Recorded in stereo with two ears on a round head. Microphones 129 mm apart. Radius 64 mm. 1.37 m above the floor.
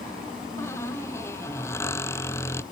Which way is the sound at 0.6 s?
20° left (ahead or behind).